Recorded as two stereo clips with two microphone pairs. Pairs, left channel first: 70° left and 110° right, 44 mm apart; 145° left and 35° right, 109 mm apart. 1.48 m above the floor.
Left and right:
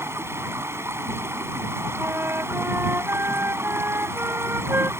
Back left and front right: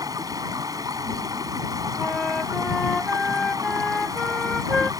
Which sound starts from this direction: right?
Running water, at 0.0 s.